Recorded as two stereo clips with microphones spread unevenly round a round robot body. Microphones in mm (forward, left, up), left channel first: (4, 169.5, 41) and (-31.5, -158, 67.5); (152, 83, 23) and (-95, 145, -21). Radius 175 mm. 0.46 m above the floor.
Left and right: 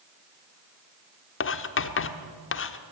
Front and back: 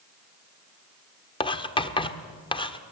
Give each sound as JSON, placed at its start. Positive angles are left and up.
{"t": 1.4, "sound": "writing", "azimuth_deg": 60, "distance_m": 1.3}